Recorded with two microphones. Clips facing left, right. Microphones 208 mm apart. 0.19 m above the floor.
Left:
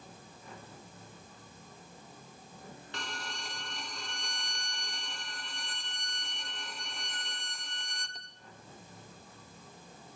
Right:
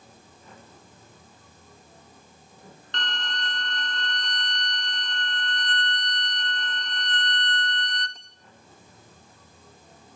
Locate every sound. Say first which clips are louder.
2.9 s a violin: right 7 dB; 10° left (ahead or behind), 0.9 m